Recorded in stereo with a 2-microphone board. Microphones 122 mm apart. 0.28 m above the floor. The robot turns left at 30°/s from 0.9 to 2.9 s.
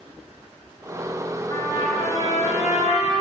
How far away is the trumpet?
About 2 m.